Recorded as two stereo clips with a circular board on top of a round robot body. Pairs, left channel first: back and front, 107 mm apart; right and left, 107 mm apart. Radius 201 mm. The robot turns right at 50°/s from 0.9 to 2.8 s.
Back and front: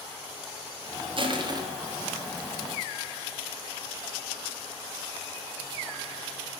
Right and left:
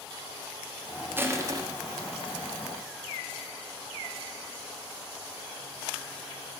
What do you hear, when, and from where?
1.2 s crushing: 20° left, 1.4 m; by 1.6 s 45° left, 1.4 m